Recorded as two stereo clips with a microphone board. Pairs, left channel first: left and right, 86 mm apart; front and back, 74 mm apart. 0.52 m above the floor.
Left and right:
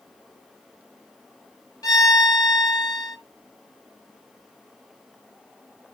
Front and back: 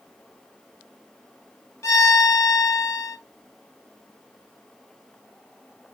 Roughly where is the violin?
Ahead left.